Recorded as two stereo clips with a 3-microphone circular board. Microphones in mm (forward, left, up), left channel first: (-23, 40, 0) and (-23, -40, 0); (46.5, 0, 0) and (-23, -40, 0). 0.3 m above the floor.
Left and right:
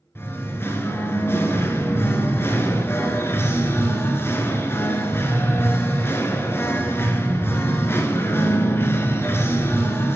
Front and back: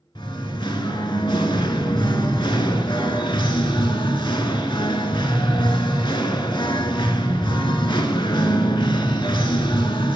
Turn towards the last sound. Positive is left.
turn(degrees=30)